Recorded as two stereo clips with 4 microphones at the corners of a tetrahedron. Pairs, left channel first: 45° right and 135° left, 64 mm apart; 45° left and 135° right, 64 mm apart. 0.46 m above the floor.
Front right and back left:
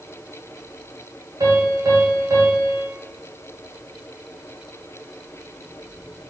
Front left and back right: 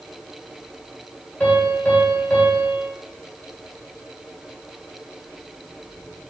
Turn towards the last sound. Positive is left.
turn(degrees=115)